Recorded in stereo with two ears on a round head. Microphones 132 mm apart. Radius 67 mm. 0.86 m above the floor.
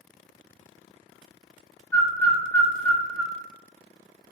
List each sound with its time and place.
1.9 s a bird: 10° left (ahead or behind), 0.7 m